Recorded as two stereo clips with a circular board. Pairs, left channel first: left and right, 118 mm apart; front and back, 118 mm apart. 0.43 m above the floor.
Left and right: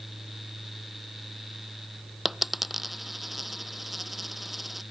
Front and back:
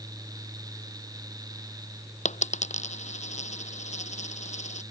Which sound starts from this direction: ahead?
A dropped coin, at 2.2 s.